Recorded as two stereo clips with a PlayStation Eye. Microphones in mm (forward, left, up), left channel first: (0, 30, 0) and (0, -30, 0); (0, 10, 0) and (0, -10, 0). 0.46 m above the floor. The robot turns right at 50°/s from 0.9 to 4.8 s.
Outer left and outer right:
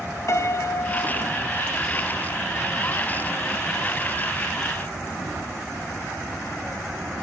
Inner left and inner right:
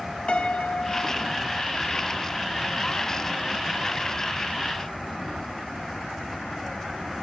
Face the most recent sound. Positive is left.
turn(degrees=-65)